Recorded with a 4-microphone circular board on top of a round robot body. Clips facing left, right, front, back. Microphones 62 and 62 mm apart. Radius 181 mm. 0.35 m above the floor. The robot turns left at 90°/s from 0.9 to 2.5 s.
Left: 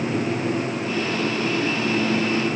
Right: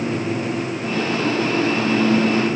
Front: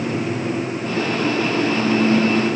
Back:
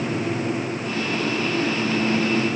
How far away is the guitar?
I don't hear a guitar.